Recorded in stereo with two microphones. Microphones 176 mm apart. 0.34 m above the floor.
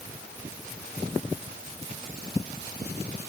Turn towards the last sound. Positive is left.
No sound to turn to.